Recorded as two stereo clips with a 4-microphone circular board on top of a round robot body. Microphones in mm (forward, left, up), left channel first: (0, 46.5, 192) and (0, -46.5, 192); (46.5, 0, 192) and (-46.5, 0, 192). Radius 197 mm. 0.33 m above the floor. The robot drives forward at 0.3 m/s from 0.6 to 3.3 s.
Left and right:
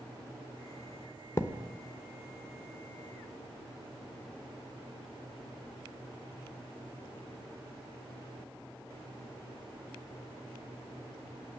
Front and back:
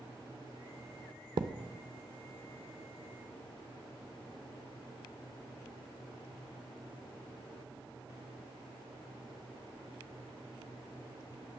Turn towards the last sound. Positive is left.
turn(degrees=165)